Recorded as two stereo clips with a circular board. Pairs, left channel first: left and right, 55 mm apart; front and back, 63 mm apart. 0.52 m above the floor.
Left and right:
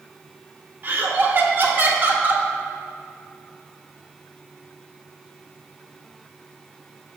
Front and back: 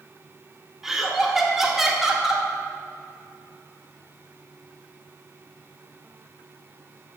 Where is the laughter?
100° right, 0.8 m.